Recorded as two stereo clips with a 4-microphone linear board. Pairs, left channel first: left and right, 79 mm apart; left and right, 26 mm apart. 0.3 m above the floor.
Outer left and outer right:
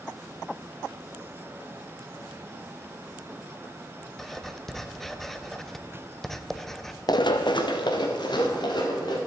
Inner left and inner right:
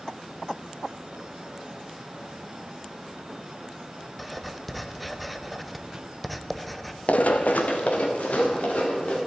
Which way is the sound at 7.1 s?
60° left (ahead or behind).